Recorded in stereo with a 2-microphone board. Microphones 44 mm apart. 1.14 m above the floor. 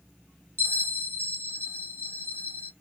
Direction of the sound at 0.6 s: 70° right (ahead or behind).